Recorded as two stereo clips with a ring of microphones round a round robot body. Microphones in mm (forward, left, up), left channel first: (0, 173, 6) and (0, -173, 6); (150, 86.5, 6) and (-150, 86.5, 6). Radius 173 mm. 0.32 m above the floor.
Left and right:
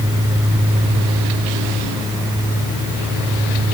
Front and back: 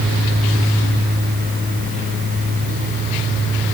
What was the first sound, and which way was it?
Only background noise.